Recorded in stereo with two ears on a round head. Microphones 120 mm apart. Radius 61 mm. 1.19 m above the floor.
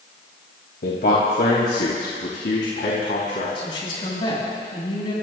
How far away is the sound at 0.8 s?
About 1.9 m.